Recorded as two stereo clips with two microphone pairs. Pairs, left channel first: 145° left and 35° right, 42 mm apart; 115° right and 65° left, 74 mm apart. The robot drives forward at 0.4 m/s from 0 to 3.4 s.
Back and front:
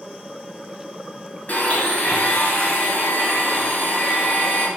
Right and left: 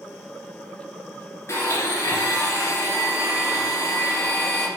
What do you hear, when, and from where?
1.5 s a blender: 165° right, 2 m